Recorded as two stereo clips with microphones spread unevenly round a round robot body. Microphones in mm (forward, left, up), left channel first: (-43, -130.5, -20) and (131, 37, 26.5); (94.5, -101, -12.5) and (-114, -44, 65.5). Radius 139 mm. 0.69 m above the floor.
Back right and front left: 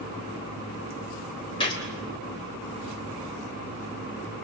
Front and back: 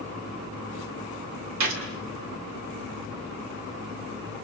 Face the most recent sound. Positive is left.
turn(degrees=155)